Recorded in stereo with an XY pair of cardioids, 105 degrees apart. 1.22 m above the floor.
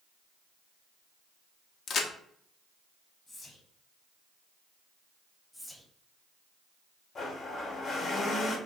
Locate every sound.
1.9 s a crack: 55° left, 0.5 m
3.3 s whispering: 40° left, 1.0 m
5.5 s whispering: 5° left, 0.7 m
7.2 s a blender: 50° left, 0.8 m